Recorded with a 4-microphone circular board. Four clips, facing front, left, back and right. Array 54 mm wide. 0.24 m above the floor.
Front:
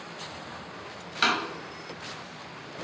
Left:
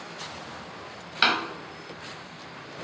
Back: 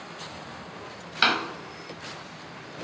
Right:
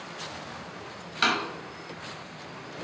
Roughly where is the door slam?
Behind left.